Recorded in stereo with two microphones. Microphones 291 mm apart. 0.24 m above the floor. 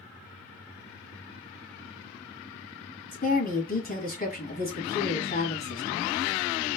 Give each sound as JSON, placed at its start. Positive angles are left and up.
{"t": 3.1, "sound": "a woman speaking", "side_deg": 30, "distance_m": 1.6}